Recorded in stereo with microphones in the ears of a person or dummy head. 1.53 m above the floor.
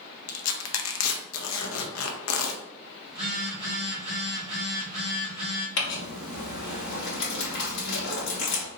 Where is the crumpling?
70° left (ahead or behind), 1.7 m.